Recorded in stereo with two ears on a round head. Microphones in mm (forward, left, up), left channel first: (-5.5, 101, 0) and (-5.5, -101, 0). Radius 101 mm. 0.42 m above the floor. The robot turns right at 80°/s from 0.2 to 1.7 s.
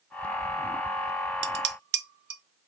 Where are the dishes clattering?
50° right (ahead or behind), 0.6 m.